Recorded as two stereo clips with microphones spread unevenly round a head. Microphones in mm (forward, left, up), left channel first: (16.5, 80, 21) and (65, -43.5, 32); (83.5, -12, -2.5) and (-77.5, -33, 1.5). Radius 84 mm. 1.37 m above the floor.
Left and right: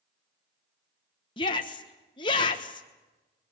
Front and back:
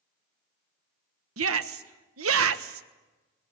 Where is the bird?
No bird in this recording.